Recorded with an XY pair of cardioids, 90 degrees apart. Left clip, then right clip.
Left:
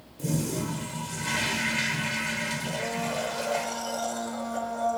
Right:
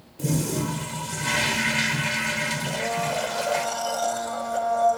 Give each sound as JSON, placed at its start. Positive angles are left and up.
{"t": 0.2, "sound": "a toilet flushing", "azimuth_deg": -45, "distance_m": 1.0}
{"t": 2.7, "sound": "a blender", "azimuth_deg": -45, "distance_m": 1.2}